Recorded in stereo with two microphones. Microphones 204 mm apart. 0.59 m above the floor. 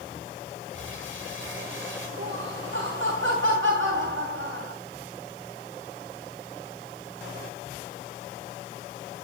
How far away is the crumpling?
About 8 m.